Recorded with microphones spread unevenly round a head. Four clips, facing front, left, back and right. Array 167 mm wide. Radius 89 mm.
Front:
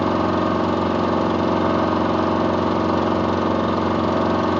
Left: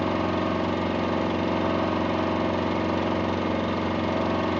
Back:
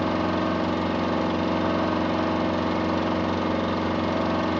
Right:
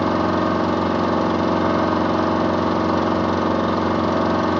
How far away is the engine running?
About 1.0 m.